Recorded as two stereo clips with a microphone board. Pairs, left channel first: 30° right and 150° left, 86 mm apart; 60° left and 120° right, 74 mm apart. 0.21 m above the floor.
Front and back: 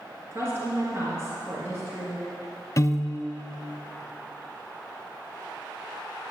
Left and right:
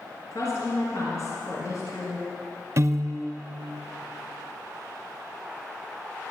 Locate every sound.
0.3 s a woman speaking: 95° left, 2.5 m
2.8 s a piano: 75° right, 0.5 m